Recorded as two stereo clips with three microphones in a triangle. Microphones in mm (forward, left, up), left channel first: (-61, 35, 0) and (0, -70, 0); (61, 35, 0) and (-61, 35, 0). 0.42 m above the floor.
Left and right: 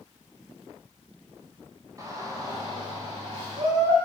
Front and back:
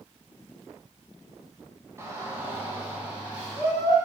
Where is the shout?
120° right, 1.6 m; by 4.0 s 100° right, 2.5 m.